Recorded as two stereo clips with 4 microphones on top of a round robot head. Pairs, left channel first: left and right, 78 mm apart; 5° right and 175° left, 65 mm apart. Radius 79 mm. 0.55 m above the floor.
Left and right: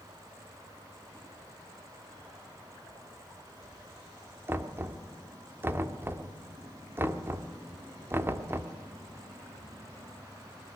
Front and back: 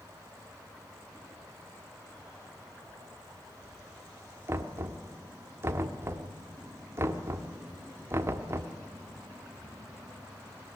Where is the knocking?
145° right, 1.4 m.